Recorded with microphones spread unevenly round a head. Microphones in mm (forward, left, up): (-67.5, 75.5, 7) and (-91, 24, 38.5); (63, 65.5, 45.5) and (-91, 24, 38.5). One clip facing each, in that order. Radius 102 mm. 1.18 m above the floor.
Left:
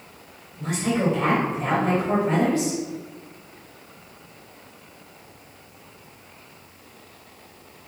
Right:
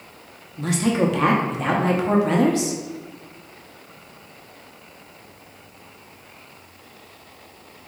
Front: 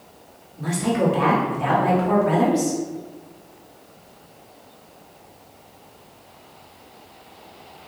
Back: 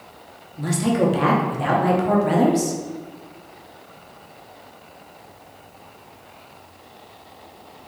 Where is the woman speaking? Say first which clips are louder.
Right 3 dB, back 2 dB; 120° right, 0.9 m.